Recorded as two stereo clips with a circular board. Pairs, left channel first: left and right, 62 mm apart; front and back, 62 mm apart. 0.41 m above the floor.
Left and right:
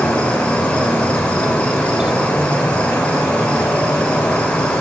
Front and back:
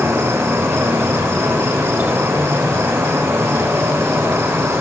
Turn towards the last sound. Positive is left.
turn(degrees=155)